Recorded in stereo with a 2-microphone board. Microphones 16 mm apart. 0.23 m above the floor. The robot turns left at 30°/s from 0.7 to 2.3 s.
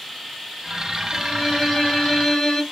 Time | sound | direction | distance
1.1 | a violin | 130° left | 1.6 m